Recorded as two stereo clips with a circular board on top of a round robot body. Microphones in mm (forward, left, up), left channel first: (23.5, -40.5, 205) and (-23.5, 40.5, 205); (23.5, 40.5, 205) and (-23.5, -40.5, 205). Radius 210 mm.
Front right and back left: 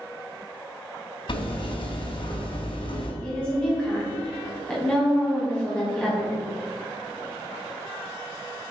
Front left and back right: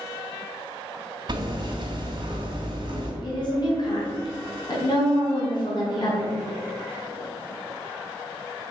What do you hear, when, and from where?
1.3 s hammering: 80° right, 2.5 m
3.2 s a woman speaking: 20° left, 3.5 m